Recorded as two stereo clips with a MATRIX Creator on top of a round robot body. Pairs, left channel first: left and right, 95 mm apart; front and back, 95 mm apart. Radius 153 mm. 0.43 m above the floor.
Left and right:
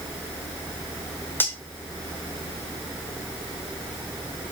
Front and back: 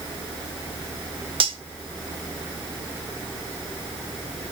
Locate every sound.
1.4 s cutlery clinking: 160° left, 1.1 m